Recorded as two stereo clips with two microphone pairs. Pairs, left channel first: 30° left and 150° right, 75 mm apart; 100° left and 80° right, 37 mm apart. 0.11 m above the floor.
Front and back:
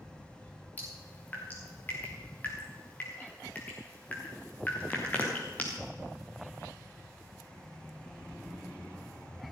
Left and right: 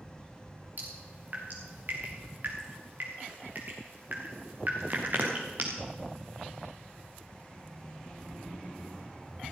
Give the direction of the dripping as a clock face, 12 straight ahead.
1 o'clock.